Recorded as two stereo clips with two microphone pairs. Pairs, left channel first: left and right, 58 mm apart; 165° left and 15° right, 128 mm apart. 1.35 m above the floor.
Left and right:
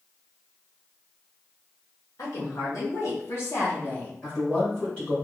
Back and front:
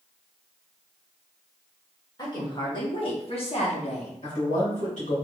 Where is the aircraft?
I don't hear an aircraft.